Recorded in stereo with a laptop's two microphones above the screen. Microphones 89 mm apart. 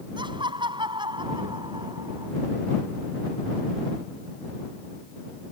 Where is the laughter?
65° right (ahead or behind).